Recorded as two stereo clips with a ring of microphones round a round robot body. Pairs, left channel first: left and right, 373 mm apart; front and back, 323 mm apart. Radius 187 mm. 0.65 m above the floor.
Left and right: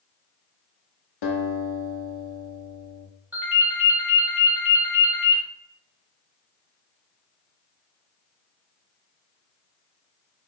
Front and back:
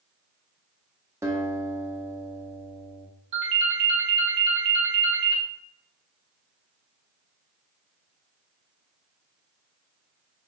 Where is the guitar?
100° left, 1.2 m.